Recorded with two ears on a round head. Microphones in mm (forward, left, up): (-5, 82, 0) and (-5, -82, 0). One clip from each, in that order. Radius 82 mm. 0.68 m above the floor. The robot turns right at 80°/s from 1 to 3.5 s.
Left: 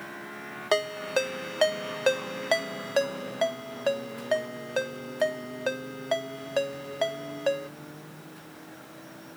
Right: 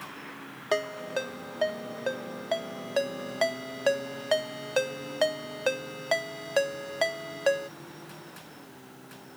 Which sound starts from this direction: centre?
A ringtone, at 0.7 s.